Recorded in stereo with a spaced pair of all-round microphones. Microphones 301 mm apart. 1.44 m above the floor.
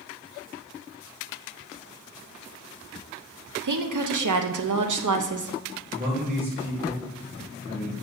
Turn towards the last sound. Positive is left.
turn(degrees=-30)  # may be behind; listen again after turning